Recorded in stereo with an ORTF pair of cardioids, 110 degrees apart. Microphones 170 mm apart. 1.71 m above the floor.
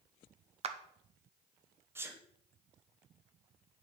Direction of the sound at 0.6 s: 45° right.